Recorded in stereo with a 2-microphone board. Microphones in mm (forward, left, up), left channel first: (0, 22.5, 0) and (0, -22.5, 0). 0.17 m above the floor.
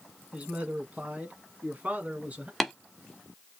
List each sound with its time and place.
0.3 s a man speaking: 30° right (ahead or behind), 1.5 m; by 2.5 s 35° right (ahead or behind), 1.6 m
2.6 s tapping: centre (ahead or behind), 1.2 m